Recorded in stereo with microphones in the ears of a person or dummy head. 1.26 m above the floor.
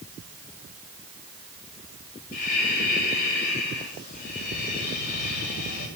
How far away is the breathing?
About 8 m.